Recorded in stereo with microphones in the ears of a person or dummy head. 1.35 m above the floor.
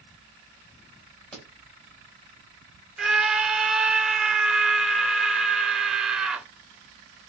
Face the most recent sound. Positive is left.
turn(degrees=-5)  # may be behind; listen again after turning